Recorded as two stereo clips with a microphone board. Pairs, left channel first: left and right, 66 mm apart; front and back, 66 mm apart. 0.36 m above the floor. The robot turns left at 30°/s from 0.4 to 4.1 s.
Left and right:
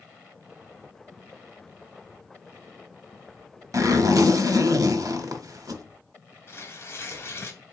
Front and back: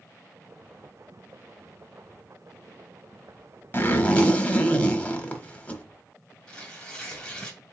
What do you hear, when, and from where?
3.7 s a zipper: 60° right, 0.9 m; by 5.8 s 70° right, 0.9 m
6.5 s tearing paper: 70° left, 1.2 m